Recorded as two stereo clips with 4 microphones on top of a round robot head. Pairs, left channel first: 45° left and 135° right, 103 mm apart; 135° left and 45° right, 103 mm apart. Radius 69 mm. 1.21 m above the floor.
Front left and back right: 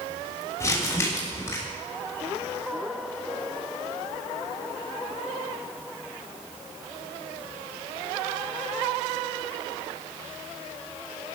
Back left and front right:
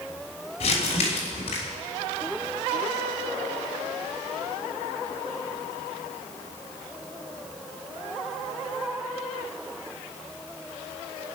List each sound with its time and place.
0.6 s crumpling: 110° left, 6.5 m